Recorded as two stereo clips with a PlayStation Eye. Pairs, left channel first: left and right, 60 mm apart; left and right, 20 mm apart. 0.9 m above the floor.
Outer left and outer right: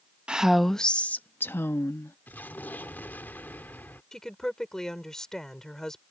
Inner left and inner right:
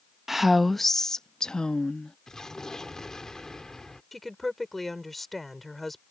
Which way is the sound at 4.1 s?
10° left (ahead or behind).